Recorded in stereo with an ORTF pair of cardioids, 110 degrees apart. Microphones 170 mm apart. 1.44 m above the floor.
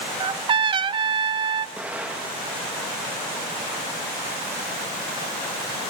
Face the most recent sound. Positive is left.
turn(degrees=-5)